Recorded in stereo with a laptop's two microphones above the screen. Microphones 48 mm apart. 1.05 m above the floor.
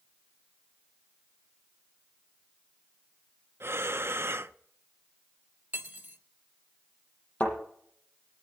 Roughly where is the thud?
Left.